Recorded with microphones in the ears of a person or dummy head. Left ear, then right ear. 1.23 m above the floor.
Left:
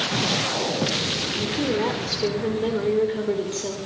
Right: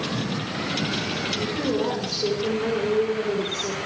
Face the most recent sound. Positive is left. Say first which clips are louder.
# left 1 dB
turn(degrees=55)  # may be behind; listen again after turning